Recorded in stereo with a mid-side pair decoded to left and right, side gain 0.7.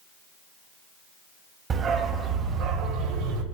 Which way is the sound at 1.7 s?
35° right.